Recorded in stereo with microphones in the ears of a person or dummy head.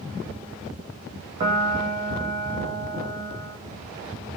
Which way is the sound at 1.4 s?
30° right (ahead or behind).